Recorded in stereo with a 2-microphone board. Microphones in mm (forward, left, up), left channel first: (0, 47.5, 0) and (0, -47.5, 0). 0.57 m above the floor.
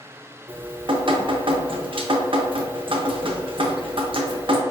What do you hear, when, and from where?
0.5 s dripping: 65° right (ahead or behind), 0.6 m